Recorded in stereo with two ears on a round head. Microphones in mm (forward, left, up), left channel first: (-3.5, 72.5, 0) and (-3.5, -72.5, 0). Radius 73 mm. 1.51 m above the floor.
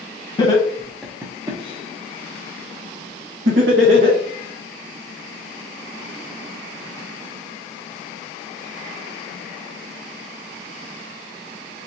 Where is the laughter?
25° left (ahead or behind), 0.8 m; by 4.2 s 85° right, 1.7 m.